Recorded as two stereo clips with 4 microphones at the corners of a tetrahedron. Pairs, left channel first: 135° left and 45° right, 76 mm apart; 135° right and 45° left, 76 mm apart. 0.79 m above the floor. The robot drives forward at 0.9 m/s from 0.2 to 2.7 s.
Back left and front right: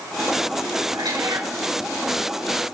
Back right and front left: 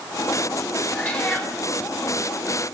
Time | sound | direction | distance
0.9 | a cat meowing | 60° right | 3.5 m